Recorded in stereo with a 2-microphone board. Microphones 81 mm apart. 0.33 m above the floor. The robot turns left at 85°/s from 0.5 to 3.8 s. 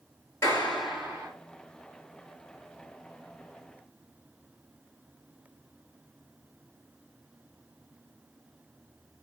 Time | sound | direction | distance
0.4 | a clap | 35° left | 4 m